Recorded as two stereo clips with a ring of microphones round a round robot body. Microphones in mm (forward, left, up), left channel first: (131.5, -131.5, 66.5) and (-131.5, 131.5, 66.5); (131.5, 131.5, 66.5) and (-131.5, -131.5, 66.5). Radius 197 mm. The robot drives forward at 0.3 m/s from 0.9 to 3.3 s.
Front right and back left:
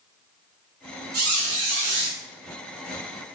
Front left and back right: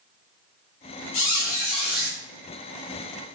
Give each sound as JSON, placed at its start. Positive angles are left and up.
{"t": 1.1, "sound": "a squeak", "azimuth_deg": 85, "distance_m": 0.6}